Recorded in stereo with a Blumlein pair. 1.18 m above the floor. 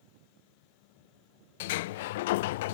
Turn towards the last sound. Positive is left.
turn(degrees=55)